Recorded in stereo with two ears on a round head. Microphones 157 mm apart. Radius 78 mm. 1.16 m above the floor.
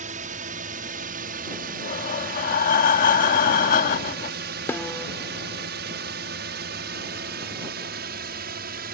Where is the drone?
45° right (ahead or behind); by 8.9 s 60° right (ahead or behind).